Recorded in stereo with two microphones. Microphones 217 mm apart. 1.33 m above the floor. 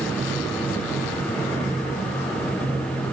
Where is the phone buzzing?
No phone buzzing in this recording.